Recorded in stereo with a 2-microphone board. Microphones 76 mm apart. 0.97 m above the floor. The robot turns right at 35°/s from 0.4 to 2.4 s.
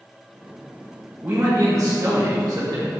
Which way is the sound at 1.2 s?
150° right.